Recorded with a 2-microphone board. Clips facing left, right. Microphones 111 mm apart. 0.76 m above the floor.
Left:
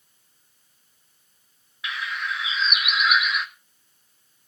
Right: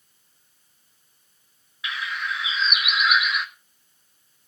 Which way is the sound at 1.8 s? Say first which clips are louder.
Even; centre (ahead or behind).